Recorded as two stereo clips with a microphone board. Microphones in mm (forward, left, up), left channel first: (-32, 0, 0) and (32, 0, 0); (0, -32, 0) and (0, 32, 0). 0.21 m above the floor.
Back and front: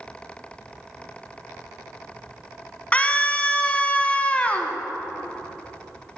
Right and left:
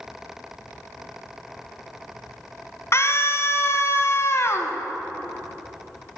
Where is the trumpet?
No trumpet in this recording.